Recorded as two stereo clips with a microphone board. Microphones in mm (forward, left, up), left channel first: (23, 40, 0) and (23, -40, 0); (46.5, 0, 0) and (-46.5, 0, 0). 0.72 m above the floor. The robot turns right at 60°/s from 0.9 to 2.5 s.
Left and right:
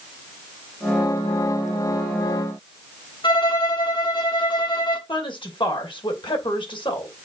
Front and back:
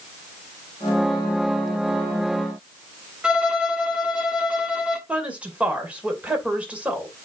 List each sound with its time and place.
3.2 s a violin: 100° left, 1.6 m
5.1 s a woman speaking: 105° left, 2.5 m